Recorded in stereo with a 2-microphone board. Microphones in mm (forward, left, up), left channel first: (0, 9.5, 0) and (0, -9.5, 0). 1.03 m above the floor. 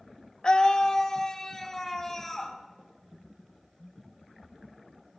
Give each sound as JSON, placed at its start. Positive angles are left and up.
{"t": 0.4, "sound": "a scream", "side_deg": 45, "distance_m": 0.7}